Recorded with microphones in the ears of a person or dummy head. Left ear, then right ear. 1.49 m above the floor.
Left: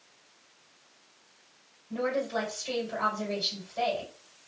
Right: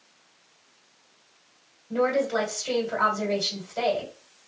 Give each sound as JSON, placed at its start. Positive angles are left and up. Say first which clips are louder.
{"t": 1.9, "sound": "a woman speaking", "louder": "right 6 dB", "side_deg": -65, "distance_m": 2.0}